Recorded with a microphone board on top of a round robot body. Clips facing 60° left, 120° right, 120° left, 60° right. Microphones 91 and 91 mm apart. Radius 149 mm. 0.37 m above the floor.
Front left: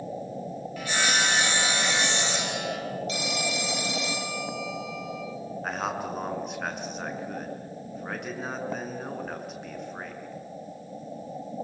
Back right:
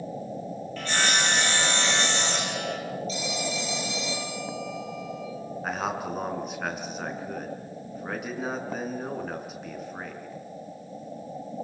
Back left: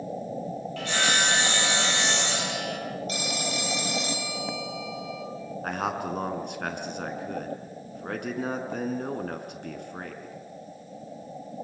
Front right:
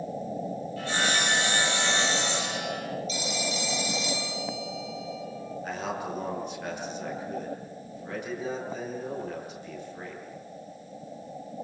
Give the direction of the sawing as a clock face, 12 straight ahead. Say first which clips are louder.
Even, back left 2 dB; 7 o'clock.